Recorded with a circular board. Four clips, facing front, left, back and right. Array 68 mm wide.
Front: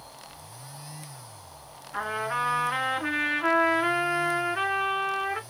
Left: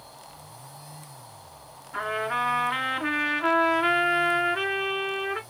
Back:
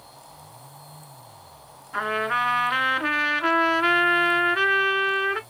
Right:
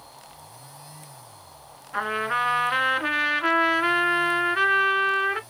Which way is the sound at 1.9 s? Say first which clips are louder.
Right 2 dB, back 5 dB; 145° right.